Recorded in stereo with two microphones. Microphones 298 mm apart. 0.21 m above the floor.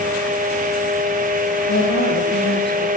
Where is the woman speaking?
35° left (ahead or behind), 7 m.